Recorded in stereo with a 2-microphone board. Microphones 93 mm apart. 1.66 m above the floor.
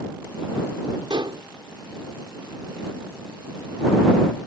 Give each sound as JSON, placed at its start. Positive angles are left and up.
{"t": 1.1, "sound": "dishes clattering", "side_deg": -60}